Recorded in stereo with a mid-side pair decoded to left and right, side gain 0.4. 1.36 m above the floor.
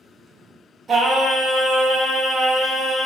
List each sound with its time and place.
0.9 s singing: 55° right, 1.4 m